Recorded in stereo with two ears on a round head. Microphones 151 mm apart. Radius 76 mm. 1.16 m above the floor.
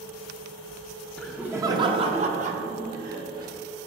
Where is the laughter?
5° left (ahead or behind), 0.6 m; by 3.5 s 65° right (ahead or behind), 1.6 m.